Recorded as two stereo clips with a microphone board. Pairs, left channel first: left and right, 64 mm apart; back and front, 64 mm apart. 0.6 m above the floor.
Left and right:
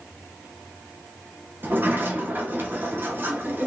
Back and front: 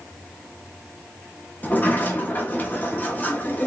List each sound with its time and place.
1.6 s a sliding door: 130° right, 0.9 m